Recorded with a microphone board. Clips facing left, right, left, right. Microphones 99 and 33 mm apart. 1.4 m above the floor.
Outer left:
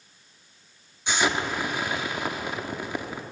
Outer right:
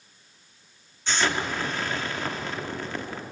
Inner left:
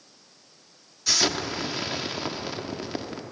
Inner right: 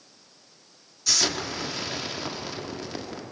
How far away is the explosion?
About 1.5 m.